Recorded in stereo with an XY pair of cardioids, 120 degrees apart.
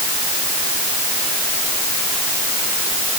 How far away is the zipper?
I don't hear a zipper.